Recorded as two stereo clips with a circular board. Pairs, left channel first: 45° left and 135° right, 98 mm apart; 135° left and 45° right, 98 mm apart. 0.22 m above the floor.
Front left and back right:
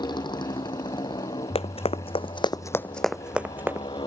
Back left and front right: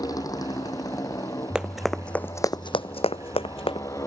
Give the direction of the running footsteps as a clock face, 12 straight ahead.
11 o'clock.